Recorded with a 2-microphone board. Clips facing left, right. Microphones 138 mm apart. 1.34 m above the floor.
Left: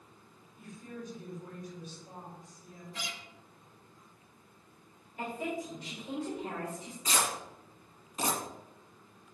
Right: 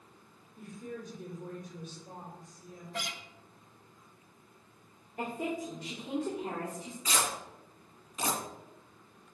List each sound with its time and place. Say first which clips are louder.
0.6 s a woman speaking: right 2 dB; 55° right (ahead or behind), 3.5 m
2.9 s a guitar: right 5 dB; 60° right (ahead or behind), 0.7 m
5.2 s a woman speaking: right 1 dB; 60° right (ahead or behind), 3 m
7.0 s tearing paper: left 1 dB; 35° left (ahead or behind), 1.7 m